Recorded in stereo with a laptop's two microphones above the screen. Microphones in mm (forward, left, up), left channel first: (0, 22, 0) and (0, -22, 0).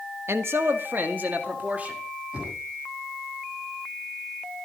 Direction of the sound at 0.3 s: 75° right (ahead or behind).